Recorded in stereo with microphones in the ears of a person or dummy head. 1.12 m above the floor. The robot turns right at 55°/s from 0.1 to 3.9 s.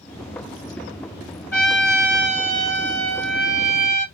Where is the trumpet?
170° left, 3.5 m; by 4.0 s 60° right, 3.5 m.